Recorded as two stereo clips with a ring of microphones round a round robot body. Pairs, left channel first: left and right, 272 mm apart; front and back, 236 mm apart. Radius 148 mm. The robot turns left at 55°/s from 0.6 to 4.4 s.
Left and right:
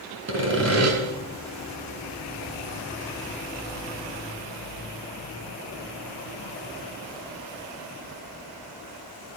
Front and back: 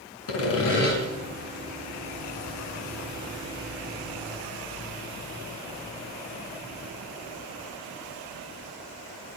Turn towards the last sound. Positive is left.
turn(degrees=110)